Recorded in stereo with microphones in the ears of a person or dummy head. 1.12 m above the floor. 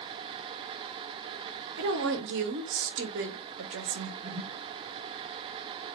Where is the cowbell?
I don't hear a cowbell.